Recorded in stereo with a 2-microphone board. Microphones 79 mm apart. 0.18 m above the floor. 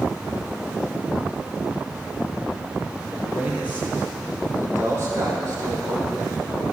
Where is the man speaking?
10° right (ahead or behind), 4.5 m; by 6.6 s 45° right (ahead or behind), 7 m.